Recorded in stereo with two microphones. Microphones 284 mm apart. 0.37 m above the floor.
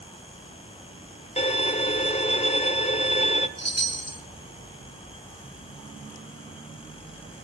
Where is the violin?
25° left (ahead or behind), 1.2 m.